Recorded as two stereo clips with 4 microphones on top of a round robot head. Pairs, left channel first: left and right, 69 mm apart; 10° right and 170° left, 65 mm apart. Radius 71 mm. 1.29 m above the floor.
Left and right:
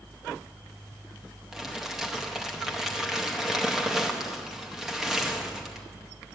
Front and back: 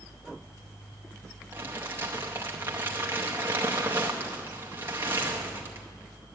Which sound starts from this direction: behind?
Crumpling, at 1.5 s.